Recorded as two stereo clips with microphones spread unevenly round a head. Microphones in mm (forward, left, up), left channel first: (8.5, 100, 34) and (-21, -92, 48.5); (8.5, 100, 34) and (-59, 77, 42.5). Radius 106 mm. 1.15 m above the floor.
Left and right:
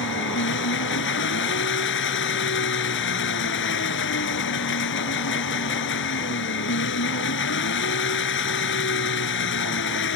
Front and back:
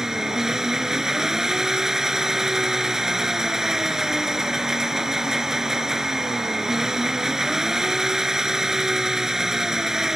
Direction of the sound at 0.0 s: 115° left.